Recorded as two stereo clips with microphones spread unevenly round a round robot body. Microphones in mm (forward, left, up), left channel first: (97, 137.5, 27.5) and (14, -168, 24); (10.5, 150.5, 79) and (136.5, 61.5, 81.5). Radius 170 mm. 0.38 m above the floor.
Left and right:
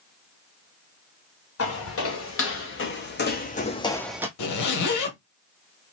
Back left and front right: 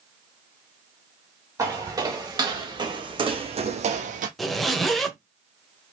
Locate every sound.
1.6 s footsteps: 35° left, 2 m; by 4.3 s 25° right, 0.7 m
4.4 s a zipper: 55° left, 1.2 m